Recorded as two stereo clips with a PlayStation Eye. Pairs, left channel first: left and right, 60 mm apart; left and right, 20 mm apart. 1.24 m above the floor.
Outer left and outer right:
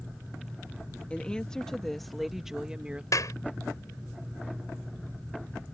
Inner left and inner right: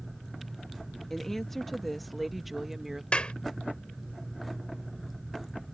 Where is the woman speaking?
20° left (ahead or behind); by 3.0 s 20° right (ahead or behind).